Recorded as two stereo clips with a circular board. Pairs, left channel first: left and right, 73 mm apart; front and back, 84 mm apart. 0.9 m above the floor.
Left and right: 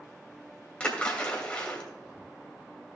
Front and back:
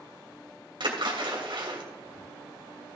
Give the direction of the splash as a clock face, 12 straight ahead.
7 o'clock.